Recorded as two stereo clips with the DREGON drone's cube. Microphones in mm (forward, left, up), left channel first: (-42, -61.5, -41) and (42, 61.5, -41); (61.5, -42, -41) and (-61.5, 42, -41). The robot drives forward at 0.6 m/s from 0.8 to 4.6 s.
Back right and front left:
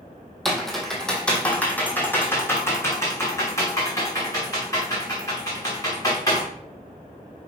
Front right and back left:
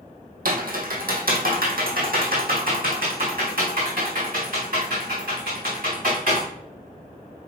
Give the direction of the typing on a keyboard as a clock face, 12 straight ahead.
7 o'clock.